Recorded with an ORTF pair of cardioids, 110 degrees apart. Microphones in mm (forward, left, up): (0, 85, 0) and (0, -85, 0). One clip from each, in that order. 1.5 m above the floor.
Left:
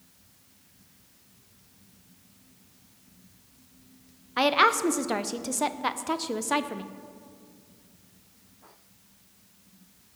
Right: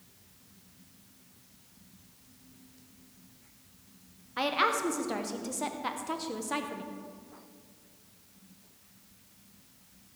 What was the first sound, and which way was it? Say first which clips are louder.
A woman speaking: left 6 dB; 35° left.